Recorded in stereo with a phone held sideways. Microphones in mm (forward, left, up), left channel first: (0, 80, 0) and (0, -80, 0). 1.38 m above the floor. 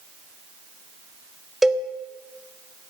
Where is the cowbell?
Centre (ahead or behind), 1.0 m.